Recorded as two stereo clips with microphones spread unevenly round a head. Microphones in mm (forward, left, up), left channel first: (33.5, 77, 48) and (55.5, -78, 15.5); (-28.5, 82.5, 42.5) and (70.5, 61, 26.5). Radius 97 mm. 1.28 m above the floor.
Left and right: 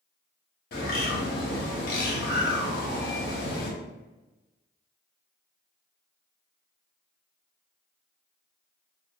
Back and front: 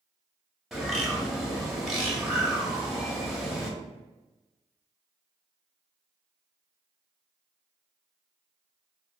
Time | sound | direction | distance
0.7 | a bird | 75° left | 1.0 m